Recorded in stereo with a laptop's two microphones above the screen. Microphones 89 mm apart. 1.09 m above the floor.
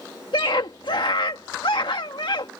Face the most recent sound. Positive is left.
turn(degrees=75)  # may be behind; listen again after turning